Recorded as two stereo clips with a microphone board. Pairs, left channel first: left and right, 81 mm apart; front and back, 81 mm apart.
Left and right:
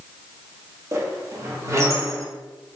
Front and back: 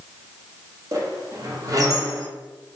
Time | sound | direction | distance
0.9 | a squeak | 140° right | 0.6 m